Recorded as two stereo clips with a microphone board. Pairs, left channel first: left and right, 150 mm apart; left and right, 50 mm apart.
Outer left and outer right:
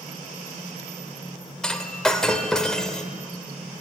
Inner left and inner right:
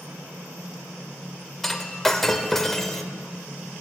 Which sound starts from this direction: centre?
Breaking glass, at 1.6 s.